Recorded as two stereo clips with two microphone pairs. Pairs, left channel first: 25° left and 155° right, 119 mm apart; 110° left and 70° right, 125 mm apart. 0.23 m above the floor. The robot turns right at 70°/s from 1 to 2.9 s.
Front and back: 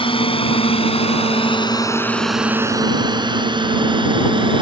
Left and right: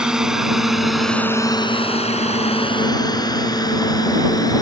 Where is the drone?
10° left; by 4.6 s 165° left.